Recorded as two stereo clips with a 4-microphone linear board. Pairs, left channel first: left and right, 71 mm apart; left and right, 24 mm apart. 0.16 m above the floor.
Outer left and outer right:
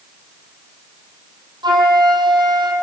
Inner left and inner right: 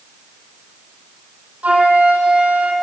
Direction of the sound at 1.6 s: 75° right (ahead or behind).